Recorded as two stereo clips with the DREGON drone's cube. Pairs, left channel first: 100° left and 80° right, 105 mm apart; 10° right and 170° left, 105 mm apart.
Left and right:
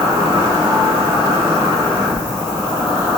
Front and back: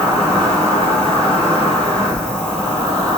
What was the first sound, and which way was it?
An insect, 80° right.